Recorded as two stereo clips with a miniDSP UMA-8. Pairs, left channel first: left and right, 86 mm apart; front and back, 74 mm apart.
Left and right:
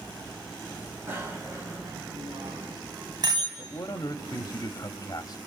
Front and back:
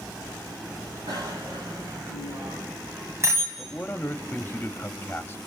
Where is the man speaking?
65° left, 1.0 m.